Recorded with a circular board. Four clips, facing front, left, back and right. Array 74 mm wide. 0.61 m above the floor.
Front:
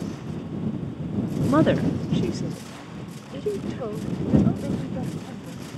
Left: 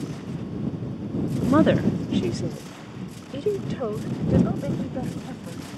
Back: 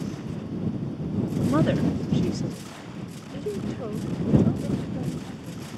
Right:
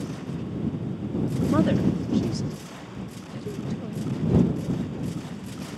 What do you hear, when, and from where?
1.5 s a woman speaking: 45° left; by 5.7 s 75° left